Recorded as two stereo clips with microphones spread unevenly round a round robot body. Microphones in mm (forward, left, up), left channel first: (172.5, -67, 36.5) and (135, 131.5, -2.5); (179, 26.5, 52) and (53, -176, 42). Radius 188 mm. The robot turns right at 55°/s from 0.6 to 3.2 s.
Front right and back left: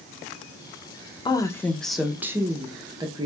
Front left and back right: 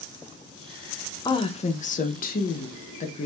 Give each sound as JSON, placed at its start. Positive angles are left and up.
{"t": 1.2, "sound": "a woman speaking", "azimuth_deg": -5, "distance_m": 0.5}